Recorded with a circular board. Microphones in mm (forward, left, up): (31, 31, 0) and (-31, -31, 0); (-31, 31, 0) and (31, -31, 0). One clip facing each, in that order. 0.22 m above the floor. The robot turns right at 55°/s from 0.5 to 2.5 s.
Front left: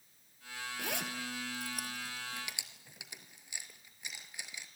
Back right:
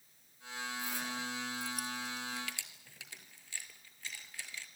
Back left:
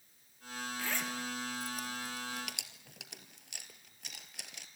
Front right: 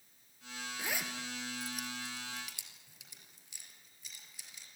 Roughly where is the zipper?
Ahead left.